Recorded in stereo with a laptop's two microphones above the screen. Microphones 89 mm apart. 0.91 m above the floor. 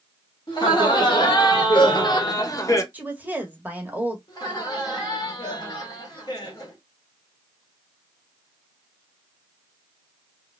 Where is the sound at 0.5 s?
55° left (ahead or behind), 1.7 m; by 2.8 s 35° left (ahead or behind), 0.8 m.